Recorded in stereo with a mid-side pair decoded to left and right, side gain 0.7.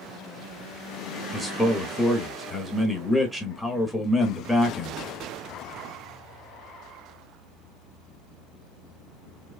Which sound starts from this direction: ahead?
A man speaking, at 1.3 s.